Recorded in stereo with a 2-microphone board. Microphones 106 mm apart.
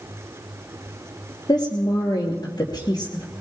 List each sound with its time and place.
1.5 s a woman speaking: 40° left (ahead or behind), 3 m